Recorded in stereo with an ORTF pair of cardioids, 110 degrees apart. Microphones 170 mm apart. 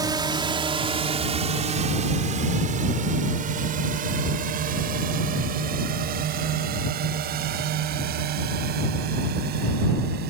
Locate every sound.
0.0 s a drone: 25° right; by 10.3 s 70° right